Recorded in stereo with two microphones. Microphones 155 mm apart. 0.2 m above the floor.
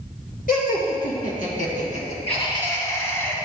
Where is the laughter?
65° left (ahead or behind), 2.5 m; by 3.4 s 15° left (ahead or behind), 2 m.